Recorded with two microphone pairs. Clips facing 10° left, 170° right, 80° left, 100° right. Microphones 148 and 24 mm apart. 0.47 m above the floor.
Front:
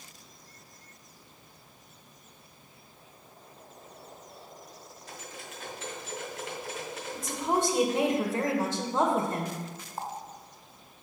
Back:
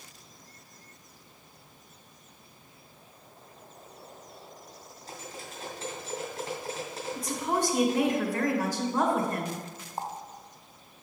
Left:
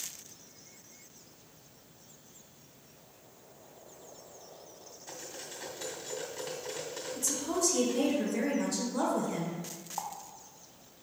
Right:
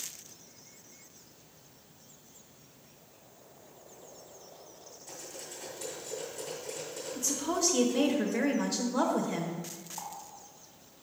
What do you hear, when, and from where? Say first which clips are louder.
5.1 s cutlery clinking: back 3 dB, left 1 dB; 130° left, 2.5 m
7.2 s a woman speaking: front 1 dB, right 1 dB; 50° right, 1.6 m
10.0 s a running tap: back 1 dB, left 4 dB; 120° left, 0.8 m